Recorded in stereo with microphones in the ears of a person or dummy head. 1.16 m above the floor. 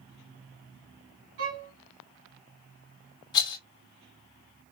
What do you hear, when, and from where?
1.4 s a violin: 65° right (ahead or behind), 2 m
3.3 s a rattle: 25° left (ahead or behind), 1.0 m